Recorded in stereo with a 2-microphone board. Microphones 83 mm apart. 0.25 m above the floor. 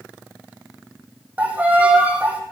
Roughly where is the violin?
Centre.